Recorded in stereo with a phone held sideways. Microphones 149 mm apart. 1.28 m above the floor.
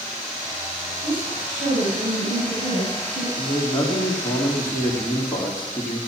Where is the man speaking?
20° left (ahead or behind), 3 m.